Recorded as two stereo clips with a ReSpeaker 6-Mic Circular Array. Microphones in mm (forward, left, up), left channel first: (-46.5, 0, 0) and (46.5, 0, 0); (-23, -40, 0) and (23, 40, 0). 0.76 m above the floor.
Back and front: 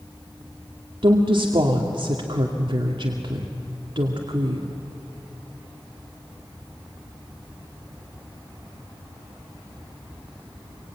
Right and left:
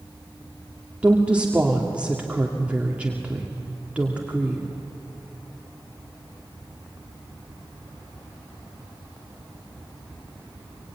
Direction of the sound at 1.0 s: 15° right.